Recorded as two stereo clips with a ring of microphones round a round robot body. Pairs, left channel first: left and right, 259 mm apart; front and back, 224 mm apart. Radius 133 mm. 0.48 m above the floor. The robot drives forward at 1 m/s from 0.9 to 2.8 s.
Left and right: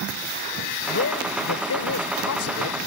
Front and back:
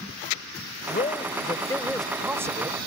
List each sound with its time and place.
0.9 s a man speaking: 50° left; by 2.8 s 115° left